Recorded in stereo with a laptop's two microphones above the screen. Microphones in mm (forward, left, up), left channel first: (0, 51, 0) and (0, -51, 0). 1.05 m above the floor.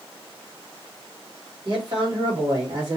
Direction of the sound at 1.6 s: 45° right (ahead or behind).